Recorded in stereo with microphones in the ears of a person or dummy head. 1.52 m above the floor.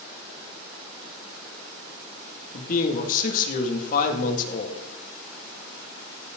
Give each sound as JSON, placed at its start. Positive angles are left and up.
{"t": 2.5, "sound": "a man speaking", "side_deg": 55, "distance_m": 2.5}